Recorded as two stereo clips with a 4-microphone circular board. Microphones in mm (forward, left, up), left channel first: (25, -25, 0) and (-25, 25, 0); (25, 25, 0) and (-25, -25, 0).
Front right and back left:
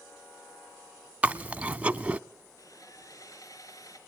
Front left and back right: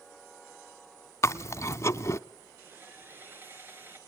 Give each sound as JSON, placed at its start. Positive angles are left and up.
{"t": 1.2, "sound": "chewing", "azimuth_deg": 70, "distance_m": 0.6}
{"t": 2.6, "sound": "sawing", "azimuth_deg": -80, "distance_m": 3.5}